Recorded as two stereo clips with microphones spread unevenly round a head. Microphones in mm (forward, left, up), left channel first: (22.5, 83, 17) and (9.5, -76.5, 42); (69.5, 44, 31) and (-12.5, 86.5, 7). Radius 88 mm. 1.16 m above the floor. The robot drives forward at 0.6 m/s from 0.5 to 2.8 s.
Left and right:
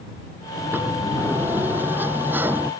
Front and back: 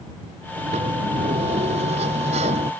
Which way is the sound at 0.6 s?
175° right.